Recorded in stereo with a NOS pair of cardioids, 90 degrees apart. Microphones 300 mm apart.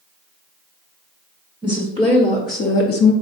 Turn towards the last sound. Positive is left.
turn(degrees=70)